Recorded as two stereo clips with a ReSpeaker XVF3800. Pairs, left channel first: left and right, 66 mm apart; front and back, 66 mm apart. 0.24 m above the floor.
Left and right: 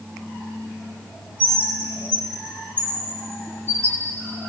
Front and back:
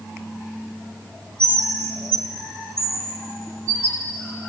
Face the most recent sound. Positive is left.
turn(degrees=-140)